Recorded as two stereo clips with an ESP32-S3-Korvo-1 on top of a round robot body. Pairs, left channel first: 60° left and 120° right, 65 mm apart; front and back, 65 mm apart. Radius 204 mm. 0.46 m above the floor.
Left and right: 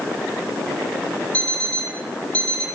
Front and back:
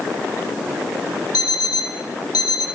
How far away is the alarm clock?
About 9 m.